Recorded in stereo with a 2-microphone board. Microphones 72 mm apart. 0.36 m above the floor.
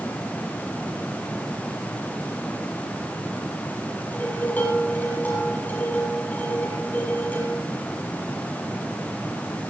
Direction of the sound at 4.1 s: 25° left (ahead or behind).